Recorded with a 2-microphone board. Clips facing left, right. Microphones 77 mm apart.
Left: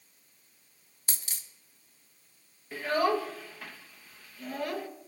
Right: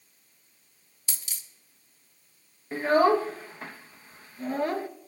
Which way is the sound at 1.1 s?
50° left (ahead or behind).